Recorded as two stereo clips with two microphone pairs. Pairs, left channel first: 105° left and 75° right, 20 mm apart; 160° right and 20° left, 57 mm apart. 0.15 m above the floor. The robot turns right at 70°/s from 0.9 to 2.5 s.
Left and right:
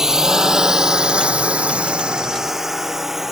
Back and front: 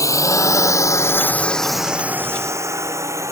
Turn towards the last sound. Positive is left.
turn(degrees=-5)